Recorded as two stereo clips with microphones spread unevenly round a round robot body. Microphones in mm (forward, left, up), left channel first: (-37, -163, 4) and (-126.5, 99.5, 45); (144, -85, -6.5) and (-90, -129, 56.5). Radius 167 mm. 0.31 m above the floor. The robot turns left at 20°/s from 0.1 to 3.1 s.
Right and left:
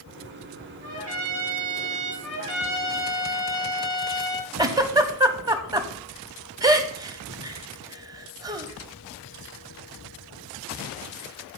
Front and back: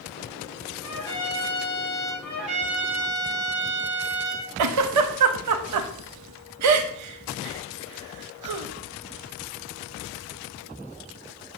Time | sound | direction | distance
0.8 | a trumpet | 30° left | 4.5 m
2.2 | a trumpet | 70° right | 5 m
4.6 | a giggle | 170° right | 0.8 m